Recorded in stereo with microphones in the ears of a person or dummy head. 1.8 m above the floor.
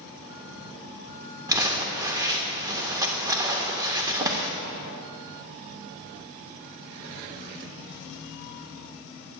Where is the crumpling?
15° right (ahead or behind), 0.7 m.